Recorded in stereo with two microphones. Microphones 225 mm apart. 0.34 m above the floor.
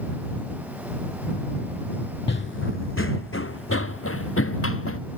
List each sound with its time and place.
2.3 s running footsteps: 55° left (ahead or behind); by 5.0 s 75° left (ahead or behind)